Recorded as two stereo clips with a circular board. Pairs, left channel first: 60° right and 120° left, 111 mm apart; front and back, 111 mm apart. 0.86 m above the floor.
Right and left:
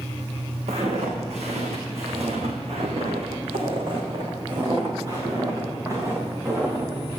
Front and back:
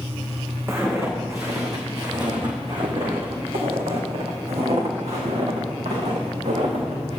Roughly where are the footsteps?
Behind left.